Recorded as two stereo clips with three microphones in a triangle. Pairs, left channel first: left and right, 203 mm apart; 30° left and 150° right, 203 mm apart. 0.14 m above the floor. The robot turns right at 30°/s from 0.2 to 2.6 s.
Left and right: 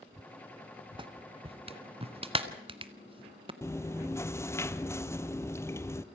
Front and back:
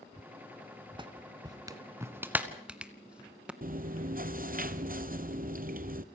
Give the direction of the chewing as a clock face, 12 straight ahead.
6 o'clock.